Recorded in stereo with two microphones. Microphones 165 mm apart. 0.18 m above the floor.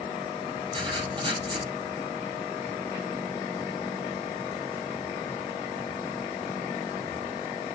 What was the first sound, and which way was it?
Writing, 30° right (ahead or behind).